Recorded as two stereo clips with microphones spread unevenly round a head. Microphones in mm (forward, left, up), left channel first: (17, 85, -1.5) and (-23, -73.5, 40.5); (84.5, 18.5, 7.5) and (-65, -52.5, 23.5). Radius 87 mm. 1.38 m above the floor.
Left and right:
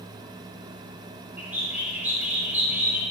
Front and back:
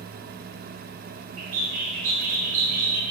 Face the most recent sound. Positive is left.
turn(degrees=170)